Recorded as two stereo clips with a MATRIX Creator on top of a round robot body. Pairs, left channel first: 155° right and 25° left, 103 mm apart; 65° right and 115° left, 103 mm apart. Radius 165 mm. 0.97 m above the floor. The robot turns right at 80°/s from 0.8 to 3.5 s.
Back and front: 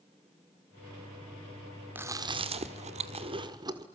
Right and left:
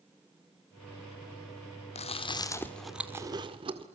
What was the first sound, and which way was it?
Chewing, 50° right.